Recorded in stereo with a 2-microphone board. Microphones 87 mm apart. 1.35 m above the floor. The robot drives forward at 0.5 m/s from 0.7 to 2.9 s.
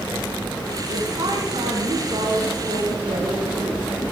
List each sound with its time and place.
0.9 s a woman speaking: 55° right (ahead or behind), 4.5 m; by 3.8 s 70° right (ahead or behind), 4 m